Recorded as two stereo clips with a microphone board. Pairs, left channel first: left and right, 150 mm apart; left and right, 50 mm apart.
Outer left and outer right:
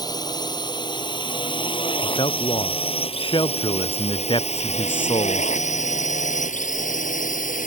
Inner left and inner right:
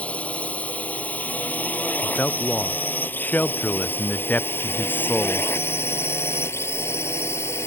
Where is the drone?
25° left (ahead or behind); by 7.7 s 60° left (ahead or behind).